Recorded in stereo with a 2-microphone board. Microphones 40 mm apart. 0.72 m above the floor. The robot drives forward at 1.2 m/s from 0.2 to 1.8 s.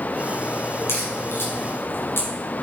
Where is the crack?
85° left, 5 m; by 2.3 s 75° left (ahead or behind), 5 m.